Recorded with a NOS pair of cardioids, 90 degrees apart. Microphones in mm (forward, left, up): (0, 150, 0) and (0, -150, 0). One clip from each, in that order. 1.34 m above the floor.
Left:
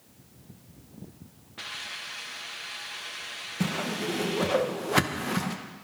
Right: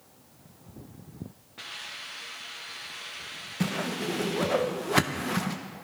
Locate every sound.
1.6 s a hiss: 20° left, 1.5 m
3.6 s a whoosh: straight ahead, 0.9 m